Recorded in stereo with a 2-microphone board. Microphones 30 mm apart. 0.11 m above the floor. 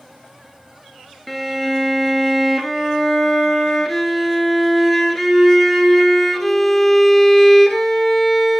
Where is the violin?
5° left (ahead or behind), 1.0 m.